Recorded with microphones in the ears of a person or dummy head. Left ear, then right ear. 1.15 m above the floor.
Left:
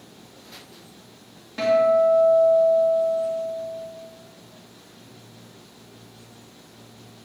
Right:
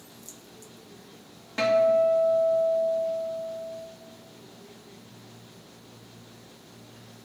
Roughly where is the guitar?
Right.